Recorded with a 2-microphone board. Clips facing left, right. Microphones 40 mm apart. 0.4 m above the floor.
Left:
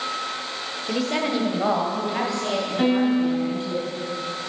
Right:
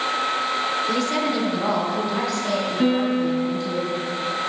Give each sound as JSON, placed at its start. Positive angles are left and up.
{"t": 0.9, "sound": "a woman speaking", "side_deg": 0, "distance_m": 1.0}
{"t": 2.8, "sound": "a piano", "side_deg": 50, "distance_m": 3.0}